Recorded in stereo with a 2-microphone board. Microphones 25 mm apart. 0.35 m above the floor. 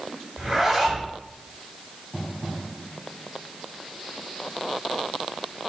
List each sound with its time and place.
0.4 s a zipper: 15° right (ahead or behind), 4.5 m